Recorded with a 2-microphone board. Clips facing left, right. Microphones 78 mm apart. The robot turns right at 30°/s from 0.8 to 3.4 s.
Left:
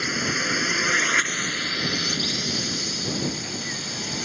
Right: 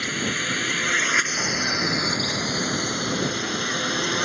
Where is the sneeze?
I don't hear a sneeze.